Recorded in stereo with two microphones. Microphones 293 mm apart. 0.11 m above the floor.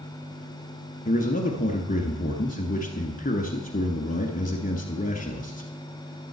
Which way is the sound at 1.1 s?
30° left (ahead or behind).